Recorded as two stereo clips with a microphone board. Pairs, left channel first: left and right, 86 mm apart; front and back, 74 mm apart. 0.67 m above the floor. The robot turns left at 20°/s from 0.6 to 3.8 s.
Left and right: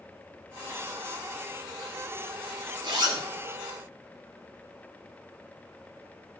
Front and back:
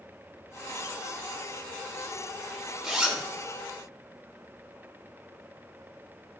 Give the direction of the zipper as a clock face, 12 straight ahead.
3 o'clock.